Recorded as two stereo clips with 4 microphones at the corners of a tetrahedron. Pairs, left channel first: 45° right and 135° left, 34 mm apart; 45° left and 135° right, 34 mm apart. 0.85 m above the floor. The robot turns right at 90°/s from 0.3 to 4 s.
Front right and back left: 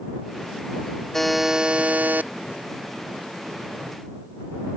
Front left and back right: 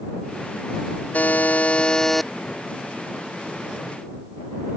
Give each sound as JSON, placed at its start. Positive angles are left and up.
{"t": 1.1, "sound": "a buzzer", "azimuth_deg": 30}